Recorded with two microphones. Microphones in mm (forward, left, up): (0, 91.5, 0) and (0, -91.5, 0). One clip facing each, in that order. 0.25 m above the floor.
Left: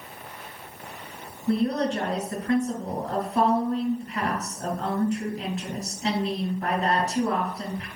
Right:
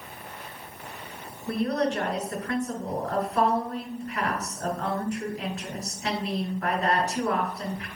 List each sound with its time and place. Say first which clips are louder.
1.5 s a woman speaking: left 2 dB; 20° left (ahead or behind), 3 m